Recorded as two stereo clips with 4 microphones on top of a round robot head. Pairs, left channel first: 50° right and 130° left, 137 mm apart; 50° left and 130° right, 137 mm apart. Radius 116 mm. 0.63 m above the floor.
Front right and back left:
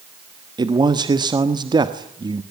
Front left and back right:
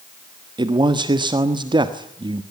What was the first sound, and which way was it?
A man speaking, straight behind.